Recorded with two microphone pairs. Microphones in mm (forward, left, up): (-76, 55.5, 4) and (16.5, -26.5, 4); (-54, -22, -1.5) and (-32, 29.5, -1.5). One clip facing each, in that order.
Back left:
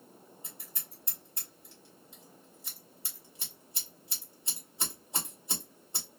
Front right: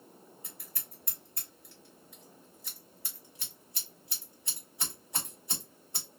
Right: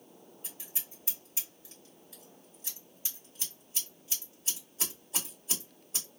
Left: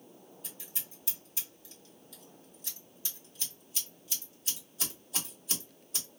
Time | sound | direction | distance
0.4 | scissors | 165° right | 1.8 m